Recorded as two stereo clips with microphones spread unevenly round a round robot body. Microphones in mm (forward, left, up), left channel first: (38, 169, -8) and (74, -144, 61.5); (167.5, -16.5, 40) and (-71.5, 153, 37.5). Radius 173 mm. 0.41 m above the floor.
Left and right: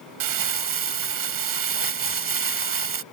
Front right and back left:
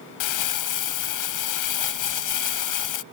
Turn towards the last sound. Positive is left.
turn(degrees=-55)